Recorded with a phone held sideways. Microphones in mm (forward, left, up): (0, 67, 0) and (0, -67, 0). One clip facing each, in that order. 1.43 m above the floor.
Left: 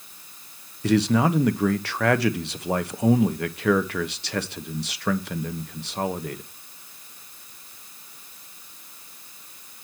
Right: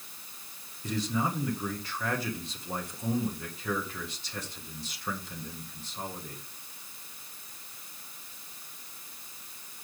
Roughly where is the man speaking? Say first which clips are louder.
Left 11 dB; left.